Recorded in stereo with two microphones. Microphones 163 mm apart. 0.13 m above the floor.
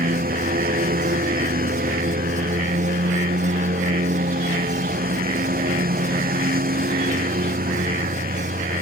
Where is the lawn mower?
65° right (ahead or behind).